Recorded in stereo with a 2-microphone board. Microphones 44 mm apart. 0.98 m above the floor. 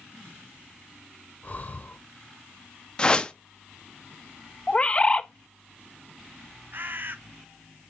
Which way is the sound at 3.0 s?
20° left (ahead or behind).